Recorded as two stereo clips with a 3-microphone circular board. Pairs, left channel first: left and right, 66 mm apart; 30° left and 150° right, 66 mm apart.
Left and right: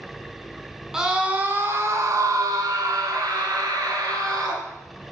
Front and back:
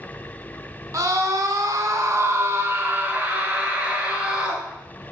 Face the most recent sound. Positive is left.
turn(degrees=-75)